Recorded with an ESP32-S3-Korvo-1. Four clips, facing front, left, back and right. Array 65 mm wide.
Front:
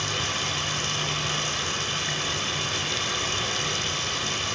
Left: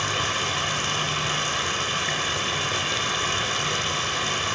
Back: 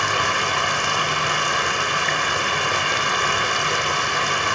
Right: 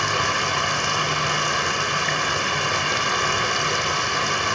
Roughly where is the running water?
Behind.